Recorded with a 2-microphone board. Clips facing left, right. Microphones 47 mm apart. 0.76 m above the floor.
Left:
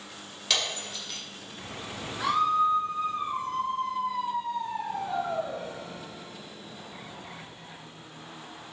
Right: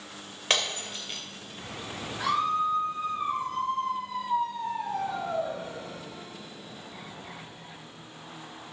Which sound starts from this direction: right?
Breaking glass, at 0.5 s.